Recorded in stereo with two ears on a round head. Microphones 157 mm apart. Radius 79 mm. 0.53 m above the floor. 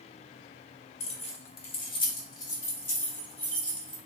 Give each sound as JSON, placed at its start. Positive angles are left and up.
{"t": 1.0, "sound": "keys jangling", "side_deg": 40, "distance_m": 0.7}